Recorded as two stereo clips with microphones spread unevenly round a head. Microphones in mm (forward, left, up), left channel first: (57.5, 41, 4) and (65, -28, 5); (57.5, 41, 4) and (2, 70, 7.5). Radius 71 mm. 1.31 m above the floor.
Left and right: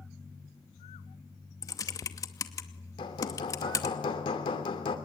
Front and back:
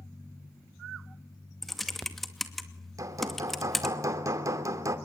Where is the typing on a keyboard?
60° left, 2.5 m.